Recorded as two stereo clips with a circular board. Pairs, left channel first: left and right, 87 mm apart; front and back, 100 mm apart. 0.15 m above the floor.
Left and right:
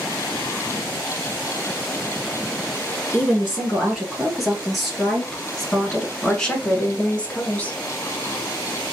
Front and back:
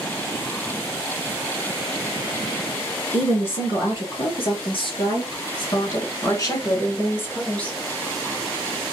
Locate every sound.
3.1 s a woman speaking: 5° right, 3 m; by 7.8 s 65° left, 1.1 m